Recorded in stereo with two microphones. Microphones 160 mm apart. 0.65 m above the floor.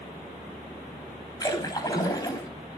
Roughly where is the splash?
Left.